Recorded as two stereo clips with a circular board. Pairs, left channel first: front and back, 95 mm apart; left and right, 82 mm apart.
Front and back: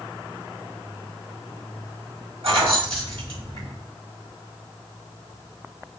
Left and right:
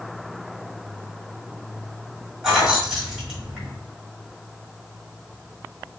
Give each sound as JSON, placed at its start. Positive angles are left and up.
{"t": 2.4, "sound": "keys jangling", "azimuth_deg": -170, "distance_m": 1.9}